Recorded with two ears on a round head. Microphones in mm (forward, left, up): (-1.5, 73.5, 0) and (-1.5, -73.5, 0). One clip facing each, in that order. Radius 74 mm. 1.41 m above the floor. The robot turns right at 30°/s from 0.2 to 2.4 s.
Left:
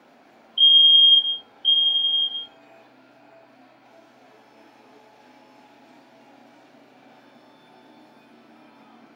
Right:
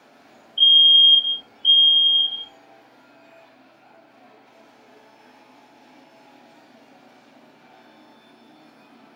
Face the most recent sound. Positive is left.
turn(degrees=0)  # may be behind; listen again after turning